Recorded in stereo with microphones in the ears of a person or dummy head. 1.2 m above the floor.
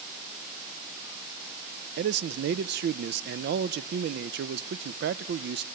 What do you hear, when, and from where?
2.0 s a man speaking: 60° right (ahead or behind), 0.5 m